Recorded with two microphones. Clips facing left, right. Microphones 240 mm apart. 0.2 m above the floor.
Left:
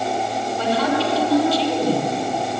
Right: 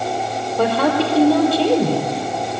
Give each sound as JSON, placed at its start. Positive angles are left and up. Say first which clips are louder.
{"t": 0.6, "sound": "a woman speaking", "louder": "right 4 dB", "side_deg": -60, "distance_m": 5.5}